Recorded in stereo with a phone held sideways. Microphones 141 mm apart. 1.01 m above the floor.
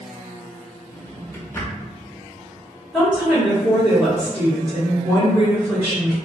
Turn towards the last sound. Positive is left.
turn(degrees=0)  # may be behind; listen again after turning